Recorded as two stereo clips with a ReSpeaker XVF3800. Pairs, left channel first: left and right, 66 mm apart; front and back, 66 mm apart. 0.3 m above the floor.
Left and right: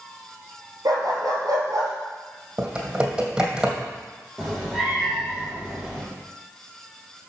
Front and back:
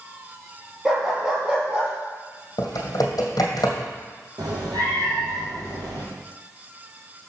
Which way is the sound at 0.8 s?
100° right.